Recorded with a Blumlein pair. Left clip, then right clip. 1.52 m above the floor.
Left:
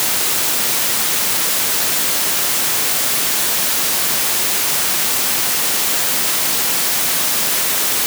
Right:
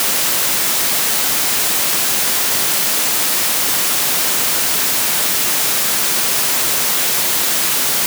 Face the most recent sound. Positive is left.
No sound to turn to.